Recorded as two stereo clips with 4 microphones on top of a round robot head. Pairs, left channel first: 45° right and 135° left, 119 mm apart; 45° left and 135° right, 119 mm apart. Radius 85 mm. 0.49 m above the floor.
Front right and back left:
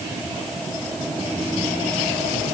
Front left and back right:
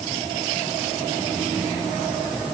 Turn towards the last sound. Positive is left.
No sound to turn to.